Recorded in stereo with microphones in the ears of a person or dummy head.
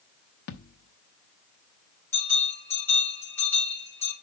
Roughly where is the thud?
Left.